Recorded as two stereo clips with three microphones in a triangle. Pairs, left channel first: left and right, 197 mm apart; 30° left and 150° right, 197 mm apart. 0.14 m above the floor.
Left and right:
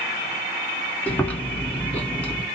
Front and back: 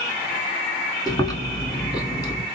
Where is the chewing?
25° left, 1.1 m.